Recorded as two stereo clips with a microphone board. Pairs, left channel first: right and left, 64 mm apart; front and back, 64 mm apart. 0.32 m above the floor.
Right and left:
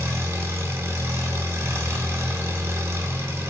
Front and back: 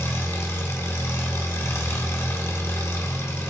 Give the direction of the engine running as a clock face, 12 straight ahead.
10 o'clock.